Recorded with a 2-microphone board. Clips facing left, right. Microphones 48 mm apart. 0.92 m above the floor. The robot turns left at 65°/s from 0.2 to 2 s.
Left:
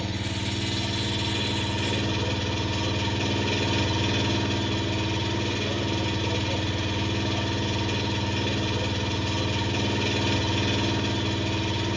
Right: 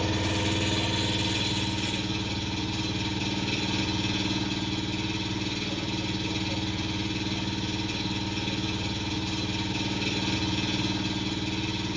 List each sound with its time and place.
0.0 s an engine running: 120° right, 1.2 m; by 12.0 s 125° left, 1.2 m